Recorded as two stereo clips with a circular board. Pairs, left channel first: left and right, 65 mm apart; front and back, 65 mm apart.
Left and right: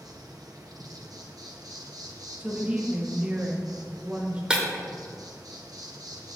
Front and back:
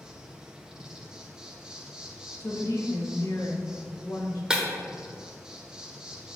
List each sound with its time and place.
0.0 s an insect: 100° right, 0.7 m
2.4 s a woman speaking: 20° right, 1.1 m
4.5 s breaking glass: 135° right, 1.0 m